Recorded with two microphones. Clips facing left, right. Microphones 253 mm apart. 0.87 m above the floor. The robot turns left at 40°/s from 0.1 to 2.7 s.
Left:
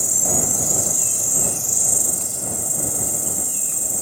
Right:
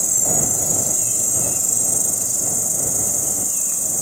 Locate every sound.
0.0 s an insect: 5° left; by 4.0 s 100° right